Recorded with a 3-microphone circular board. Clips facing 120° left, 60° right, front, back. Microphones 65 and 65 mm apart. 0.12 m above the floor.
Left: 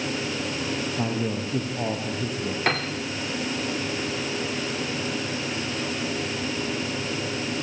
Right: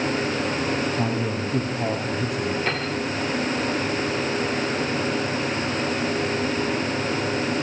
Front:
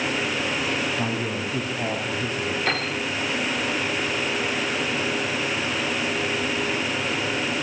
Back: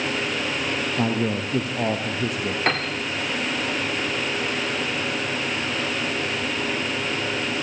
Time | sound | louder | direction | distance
1.0 | a man speaking | right 2 dB, back 3 dB | 170° right | 5 m
2.7 | a piano | left 1 dB, back 4 dB | 145° left | 6.5 m